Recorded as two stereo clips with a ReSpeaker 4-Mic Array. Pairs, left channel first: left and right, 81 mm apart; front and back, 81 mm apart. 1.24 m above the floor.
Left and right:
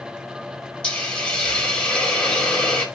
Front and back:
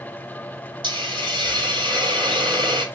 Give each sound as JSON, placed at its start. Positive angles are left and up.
{"t": 0.8, "sound": "a hiss", "azimuth_deg": 170, "distance_m": 4.5}